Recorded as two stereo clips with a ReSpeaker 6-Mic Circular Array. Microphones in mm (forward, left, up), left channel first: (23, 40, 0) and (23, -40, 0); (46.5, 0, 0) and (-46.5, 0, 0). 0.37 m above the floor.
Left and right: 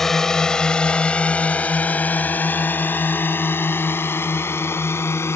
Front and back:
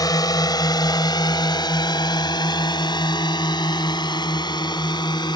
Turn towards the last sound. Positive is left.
turn(degrees=35)